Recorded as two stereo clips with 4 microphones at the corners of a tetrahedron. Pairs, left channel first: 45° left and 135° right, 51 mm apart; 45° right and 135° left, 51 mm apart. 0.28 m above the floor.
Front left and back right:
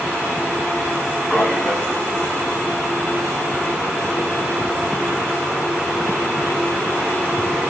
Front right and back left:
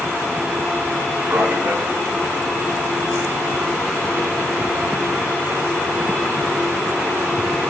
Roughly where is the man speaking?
Behind left.